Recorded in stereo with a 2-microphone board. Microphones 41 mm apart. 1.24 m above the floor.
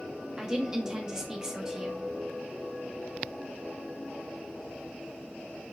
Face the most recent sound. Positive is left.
turn(degrees=-15)  # may be behind; listen again after turning